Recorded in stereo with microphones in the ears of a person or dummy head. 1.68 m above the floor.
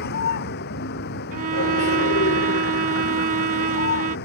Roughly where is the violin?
Right.